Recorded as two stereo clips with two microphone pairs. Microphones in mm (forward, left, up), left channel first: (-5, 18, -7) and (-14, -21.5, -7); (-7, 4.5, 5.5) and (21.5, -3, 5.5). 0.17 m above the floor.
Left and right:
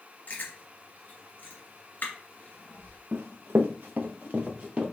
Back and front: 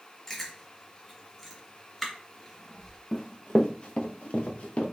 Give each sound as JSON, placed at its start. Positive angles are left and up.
{"t": 0.3, "sound": "chewing", "azimuth_deg": 85, "distance_m": 2.0}
{"t": 3.1, "sound": "running footsteps", "azimuth_deg": -110, "distance_m": 1.0}